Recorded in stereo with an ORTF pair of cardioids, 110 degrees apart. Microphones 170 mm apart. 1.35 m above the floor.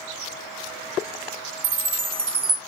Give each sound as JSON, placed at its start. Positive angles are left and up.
{"t": 1.6, "sound": "a chime", "azimuth_deg": -55, "distance_m": 1.5}